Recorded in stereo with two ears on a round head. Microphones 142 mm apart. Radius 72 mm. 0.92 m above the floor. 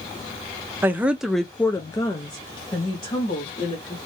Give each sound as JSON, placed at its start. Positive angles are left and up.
{"t": 0.8, "sound": "a woman speaking", "side_deg": -15, "distance_m": 0.7}